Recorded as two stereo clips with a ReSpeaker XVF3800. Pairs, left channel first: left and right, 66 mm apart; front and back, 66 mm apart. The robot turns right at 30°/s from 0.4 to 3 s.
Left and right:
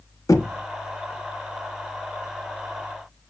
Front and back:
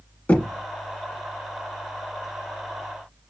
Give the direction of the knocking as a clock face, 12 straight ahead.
10 o'clock.